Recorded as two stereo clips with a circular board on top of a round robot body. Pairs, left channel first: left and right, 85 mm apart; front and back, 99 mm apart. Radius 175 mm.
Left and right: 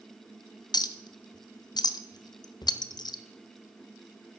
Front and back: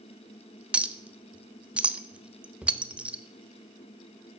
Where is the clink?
105° left, 0.6 m.